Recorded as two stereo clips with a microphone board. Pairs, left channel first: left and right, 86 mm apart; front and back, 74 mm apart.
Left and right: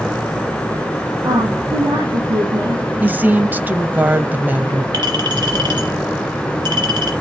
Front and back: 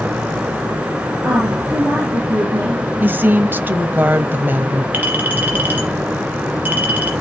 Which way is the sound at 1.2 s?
110° right.